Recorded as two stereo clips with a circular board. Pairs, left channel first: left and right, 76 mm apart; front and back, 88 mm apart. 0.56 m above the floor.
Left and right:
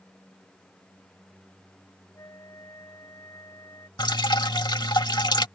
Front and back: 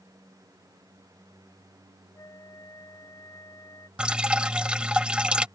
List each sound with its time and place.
2.1 s a flute: 50° left
4.0 s dripping: 100° left